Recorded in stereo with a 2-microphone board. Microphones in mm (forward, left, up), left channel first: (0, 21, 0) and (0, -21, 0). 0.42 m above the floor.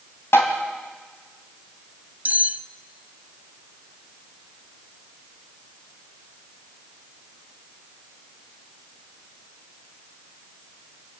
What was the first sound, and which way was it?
Tapping, 65° left (ahead or behind).